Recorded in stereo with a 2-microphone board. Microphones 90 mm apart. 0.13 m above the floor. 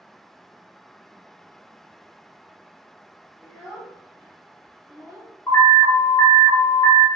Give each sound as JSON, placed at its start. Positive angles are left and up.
{"t": 3.4, "sound": "a child speaking", "side_deg": 10, "distance_m": 1.5}
{"t": 5.5, "sound": "an alarm", "side_deg": 30, "distance_m": 1.0}